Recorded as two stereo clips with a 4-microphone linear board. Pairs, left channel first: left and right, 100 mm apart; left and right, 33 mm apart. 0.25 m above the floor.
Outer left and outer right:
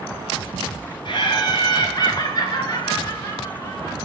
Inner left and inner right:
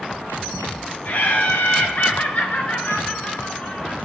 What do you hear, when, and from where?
1.1 s laughter: 55° left (ahead or behind), 4 m; by 4.0 s 30° left (ahead or behind), 4.5 m